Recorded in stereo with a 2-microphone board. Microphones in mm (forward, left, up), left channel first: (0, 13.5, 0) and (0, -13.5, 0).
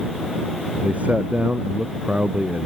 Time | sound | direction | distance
0.8 | a man speaking | 65° right (ahead or behind) | ?